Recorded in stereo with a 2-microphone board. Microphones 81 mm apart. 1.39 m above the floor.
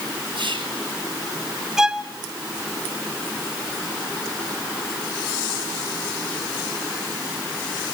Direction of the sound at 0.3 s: 85° right.